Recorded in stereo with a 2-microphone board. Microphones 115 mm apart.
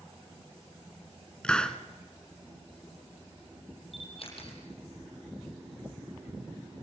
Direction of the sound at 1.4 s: 5° left (ahead or behind).